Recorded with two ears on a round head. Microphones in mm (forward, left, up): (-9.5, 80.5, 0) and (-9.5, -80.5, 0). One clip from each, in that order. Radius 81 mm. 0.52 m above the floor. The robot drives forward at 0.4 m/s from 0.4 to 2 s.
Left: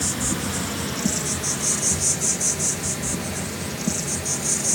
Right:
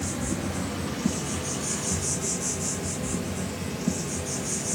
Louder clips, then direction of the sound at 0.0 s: Left 5 dB; 70° left (ahead or behind).